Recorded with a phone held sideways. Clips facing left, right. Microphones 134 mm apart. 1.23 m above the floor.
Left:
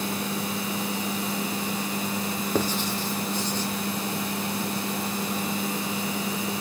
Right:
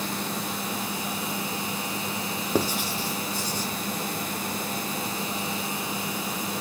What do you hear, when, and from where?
2.5 s writing: 10° right (ahead or behind), 0.5 m